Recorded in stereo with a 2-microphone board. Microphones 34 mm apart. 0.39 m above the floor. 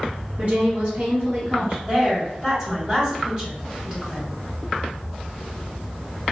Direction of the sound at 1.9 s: 30° right (ahead or behind).